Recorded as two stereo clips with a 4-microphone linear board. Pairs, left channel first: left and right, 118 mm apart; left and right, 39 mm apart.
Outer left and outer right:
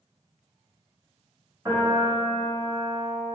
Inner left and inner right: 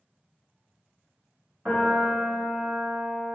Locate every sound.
1.6 s a piano: 20° right (ahead or behind), 1.2 m